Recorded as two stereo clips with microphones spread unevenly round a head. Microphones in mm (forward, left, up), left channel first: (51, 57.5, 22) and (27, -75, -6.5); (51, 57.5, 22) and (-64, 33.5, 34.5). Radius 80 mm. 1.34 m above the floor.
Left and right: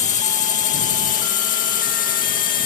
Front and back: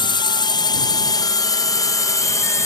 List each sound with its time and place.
0.0 s a drone: 50° left; by 2.7 s 70° left